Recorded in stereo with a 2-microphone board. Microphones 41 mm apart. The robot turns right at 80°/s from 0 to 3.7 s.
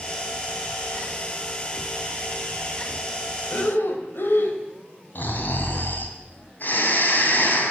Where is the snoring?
50° left (ahead or behind), 2.5 m.